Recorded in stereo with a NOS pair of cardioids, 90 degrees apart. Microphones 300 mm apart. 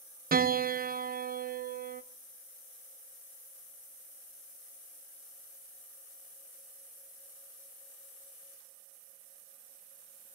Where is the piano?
30° right, 1.1 m.